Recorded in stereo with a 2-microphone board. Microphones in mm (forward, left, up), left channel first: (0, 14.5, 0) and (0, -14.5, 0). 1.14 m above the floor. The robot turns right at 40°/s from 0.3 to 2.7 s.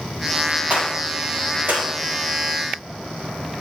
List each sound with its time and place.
0.7 s a gunshot: 50° right (ahead or behind), 4 m; by 1.9 s 80° right, 4 m